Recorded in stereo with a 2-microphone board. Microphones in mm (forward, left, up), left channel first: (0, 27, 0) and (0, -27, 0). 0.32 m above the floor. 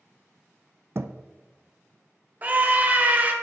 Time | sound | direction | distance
0.9 | a thud | 50° right (ahead or behind) | 0.6 m
2.4 | a scream | 35° right (ahead or behind) | 1.3 m